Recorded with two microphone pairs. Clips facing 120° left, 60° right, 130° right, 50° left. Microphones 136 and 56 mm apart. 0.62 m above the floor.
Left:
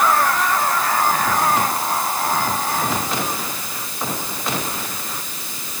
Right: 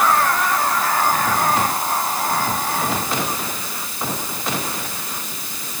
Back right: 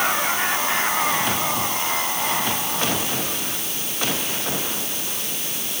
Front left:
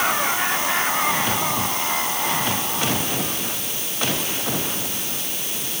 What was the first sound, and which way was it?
Only background noise.